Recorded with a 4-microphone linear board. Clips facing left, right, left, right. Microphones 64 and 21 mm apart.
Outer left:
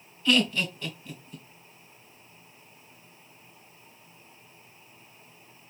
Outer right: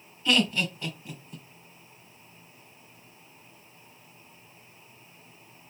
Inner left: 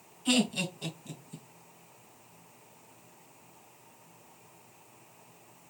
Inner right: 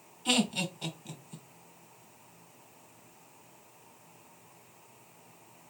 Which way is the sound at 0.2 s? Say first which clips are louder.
Outer left 1 dB, inner left 1 dB; 15° right (ahead or behind).